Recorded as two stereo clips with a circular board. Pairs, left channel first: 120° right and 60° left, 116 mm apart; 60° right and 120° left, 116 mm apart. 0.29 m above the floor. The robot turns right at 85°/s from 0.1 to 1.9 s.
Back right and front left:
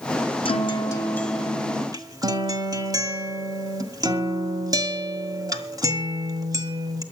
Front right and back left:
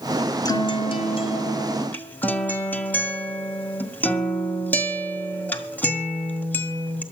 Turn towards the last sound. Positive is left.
turn(degrees=10)